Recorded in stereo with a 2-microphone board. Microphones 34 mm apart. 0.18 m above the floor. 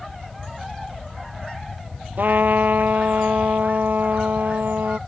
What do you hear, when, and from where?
2.2 s a trumpet: 60° right (ahead or behind)